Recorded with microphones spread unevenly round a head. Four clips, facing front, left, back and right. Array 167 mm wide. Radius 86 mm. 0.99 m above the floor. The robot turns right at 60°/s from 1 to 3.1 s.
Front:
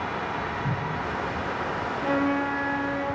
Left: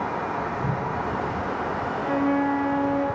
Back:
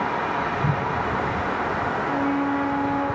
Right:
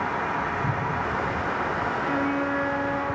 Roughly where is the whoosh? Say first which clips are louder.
Even, back 6 dB; behind.